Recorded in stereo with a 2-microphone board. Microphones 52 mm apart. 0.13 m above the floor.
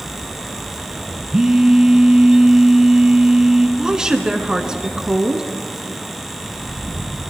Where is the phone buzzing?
15° right (ahead or behind), 0.8 m.